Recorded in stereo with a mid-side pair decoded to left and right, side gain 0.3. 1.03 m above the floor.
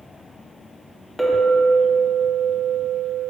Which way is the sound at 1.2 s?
10° left.